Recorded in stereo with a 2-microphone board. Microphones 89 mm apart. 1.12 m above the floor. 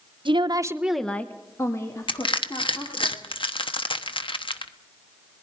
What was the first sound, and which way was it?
A woman speaking, 70° right (ahead or behind).